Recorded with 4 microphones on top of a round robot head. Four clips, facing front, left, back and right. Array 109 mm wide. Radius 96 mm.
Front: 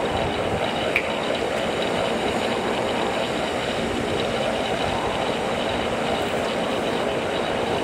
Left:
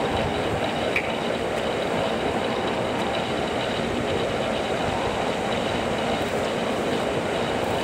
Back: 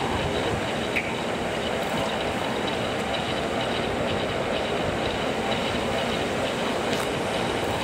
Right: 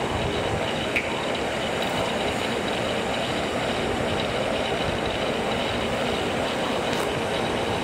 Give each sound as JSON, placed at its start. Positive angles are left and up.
{"t": 0.9, "sound": "a finger snap", "azimuth_deg": 25, "distance_m": 1.6}